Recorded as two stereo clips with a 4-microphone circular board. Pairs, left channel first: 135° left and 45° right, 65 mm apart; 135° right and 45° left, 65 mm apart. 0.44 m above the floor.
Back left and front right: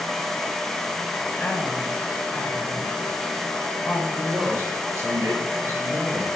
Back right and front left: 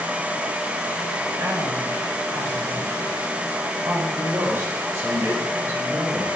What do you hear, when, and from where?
1.4 s a woman speaking: 70° left, 6 m
4.2 s a man speaking: 5° right, 8 m